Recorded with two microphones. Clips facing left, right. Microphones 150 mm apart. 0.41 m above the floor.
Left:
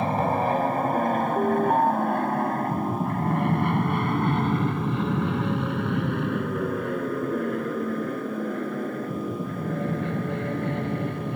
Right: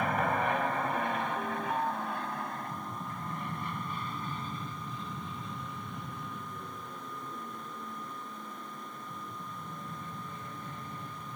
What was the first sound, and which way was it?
An aircraft, 30° left (ahead or behind).